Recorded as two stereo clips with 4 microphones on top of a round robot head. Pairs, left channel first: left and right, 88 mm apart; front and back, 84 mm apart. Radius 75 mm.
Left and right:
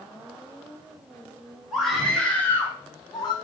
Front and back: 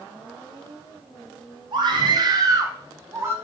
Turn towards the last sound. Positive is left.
turn(degrees=125)